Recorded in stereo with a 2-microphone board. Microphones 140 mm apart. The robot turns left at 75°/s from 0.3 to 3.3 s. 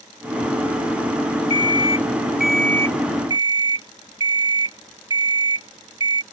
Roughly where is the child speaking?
I don't hear a child speaking.